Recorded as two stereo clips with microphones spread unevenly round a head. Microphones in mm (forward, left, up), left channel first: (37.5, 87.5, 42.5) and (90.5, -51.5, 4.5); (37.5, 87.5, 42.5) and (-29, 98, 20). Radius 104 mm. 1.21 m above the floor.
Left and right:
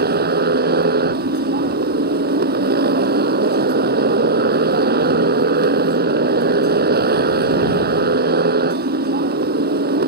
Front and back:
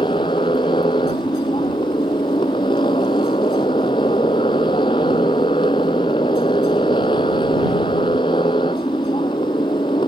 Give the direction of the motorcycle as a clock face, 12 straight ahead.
2 o'clock.